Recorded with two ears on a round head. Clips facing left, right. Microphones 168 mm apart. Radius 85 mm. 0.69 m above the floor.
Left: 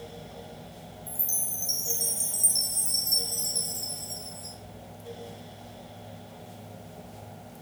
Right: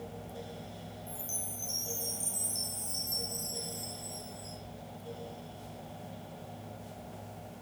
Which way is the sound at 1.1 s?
80° left.